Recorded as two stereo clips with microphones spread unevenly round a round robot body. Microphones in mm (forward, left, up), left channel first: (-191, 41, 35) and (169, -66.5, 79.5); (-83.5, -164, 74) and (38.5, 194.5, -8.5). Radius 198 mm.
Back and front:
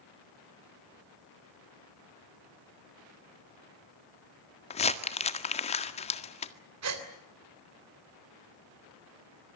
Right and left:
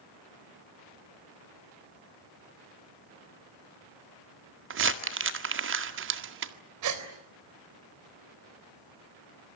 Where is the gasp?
35° left, 3.5 m.